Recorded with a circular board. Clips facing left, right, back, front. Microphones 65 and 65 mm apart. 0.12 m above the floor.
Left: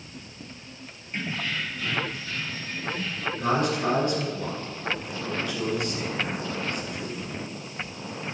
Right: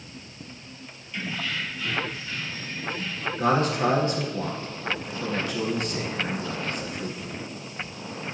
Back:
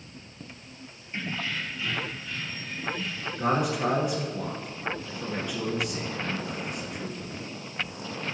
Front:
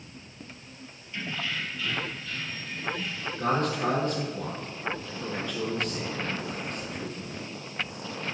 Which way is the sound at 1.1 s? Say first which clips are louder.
Even, back 1 dB; 135° left.